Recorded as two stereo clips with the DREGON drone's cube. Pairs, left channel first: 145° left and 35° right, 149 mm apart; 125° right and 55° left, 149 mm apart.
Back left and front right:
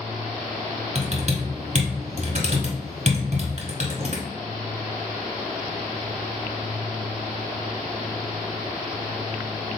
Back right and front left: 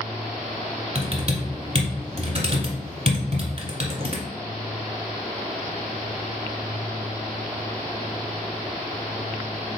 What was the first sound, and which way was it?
Typing on a keyboard, 5° left.